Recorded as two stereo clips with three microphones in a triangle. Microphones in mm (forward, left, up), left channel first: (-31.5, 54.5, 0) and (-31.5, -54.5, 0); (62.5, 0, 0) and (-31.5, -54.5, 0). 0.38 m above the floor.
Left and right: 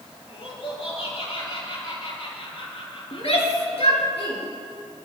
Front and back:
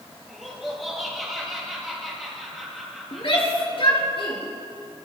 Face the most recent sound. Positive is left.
turn(degrees=65)